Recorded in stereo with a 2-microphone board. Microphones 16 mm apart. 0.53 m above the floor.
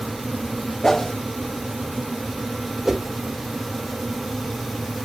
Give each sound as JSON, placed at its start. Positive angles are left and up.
{"t": 0.8, "sound": "a whoosh", "side_deg": 25, "distance_m": 0.7}
{"t": 2.9, "sound": "a whoosh", "side_deg": -10, "distance_m": 1.1}